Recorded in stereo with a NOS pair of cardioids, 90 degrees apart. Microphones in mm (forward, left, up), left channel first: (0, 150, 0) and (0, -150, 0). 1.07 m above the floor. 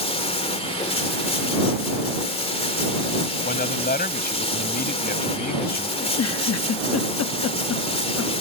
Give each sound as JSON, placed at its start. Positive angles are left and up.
{"t": 0.0, "sound": "running water", "azimuth_deg": 20}
{"t": 3.4, "sound": "a man speaking", "azimuth_deg": 30}
{"t": 6.0, "sound": "a giggle", "azimuth_deg": 65}